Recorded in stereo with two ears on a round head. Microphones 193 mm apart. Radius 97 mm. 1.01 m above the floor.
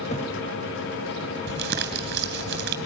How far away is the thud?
About 2.5 m.